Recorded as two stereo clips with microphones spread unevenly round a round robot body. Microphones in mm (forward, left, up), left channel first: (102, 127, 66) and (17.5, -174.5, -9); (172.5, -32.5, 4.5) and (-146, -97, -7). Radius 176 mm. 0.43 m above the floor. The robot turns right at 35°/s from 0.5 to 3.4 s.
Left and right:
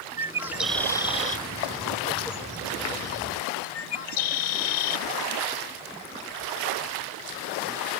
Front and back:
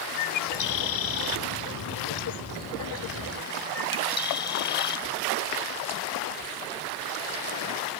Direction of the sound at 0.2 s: 25° right.